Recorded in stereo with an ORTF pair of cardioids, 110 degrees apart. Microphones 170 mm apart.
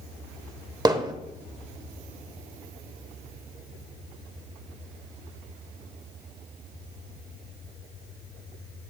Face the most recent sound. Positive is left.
turn(degrees=-25)